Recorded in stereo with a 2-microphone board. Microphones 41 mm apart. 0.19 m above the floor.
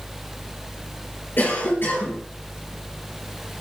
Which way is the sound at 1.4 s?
60° left (ahead or behind).